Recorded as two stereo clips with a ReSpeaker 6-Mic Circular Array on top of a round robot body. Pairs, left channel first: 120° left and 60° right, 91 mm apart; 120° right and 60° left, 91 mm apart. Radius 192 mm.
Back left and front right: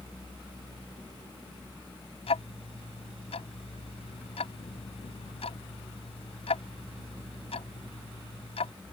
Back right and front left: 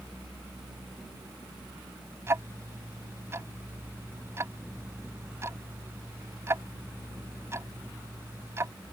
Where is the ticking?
120° left.